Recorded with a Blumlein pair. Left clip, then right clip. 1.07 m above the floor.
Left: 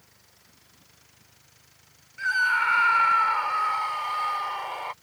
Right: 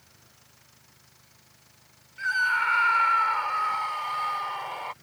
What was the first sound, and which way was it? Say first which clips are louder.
A scream: left 1 dB; 5° left.